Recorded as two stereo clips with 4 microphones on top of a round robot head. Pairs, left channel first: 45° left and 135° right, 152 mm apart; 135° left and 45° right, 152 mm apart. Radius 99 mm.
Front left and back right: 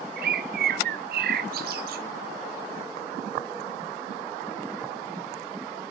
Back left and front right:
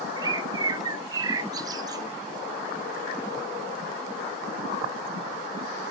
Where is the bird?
115° right, 0.5 m.